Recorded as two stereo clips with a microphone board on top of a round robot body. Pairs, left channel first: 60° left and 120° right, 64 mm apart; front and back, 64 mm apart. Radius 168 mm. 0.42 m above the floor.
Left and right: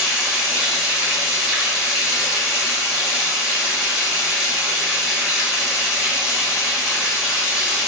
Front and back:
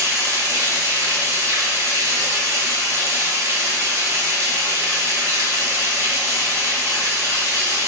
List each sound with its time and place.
0.0 s running water: 165° left, 1.3 m